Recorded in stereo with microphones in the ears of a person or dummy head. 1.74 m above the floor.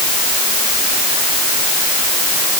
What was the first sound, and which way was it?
Only background noise.